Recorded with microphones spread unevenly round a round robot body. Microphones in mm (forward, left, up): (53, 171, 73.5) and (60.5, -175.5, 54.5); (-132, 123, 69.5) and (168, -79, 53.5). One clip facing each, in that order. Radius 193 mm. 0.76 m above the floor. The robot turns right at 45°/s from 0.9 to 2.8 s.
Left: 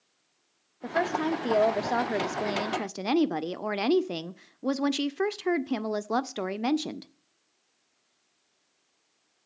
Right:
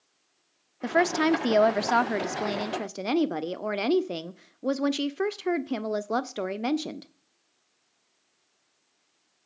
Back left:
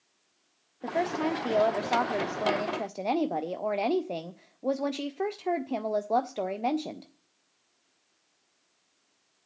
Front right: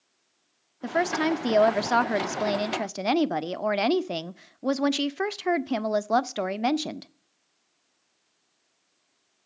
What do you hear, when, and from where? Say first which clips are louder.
0.8 s a woman speaking: right 5 dB, front right 4 dB; 80° right, 0.6 m; by 7.1 s 5° left, 0.6 m